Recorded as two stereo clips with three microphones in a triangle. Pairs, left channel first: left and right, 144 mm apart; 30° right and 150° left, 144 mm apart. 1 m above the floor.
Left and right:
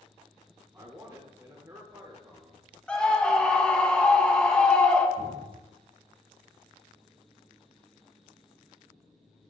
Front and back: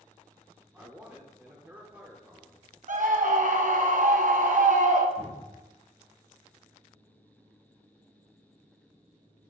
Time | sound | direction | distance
0.7 | a man speaking | 140° right | 0.9 m
2.9 | a scream | 170° left | 0.7 m
5.2 | a cupboard door | 70° right | 2.5 m